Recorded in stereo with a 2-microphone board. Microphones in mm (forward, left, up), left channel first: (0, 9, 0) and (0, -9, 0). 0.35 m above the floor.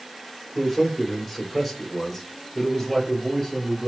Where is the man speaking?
5° right (ahead or behind), 1.5 m; by 3.9 s centre (ahead or behind), 1.6 m.